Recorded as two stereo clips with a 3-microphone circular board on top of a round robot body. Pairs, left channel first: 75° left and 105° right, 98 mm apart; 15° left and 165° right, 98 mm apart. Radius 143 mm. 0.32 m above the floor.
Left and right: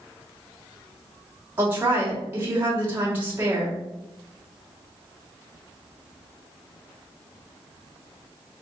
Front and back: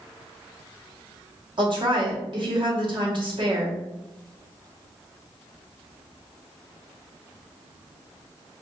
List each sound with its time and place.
1.6 s a woman speaking: 170° right, 1.5 m